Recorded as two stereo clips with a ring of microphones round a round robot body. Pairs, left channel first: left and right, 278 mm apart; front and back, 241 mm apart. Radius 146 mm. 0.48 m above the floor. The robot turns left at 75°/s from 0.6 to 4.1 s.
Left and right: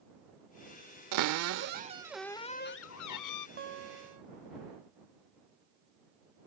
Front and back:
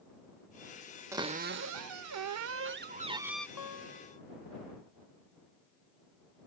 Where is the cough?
No cough in this recording.